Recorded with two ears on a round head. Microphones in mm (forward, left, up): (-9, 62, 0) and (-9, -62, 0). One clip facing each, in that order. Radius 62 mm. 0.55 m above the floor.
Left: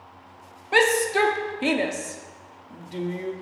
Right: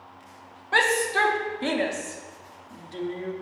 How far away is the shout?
About 0.7 m.